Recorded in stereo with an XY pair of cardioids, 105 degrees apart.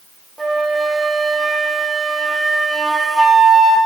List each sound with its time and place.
0.4 s a flute: 10° right, 1.2 m